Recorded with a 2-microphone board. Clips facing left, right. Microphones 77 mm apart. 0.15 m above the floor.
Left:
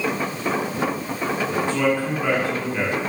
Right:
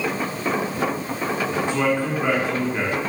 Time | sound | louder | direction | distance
1.7 | a man speaking | even | 20° right (ahead or behind) | 1.1 m